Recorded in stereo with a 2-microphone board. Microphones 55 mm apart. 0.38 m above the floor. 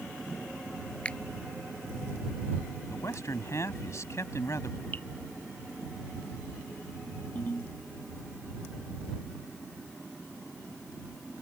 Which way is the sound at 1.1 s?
20° left (ahead or behind).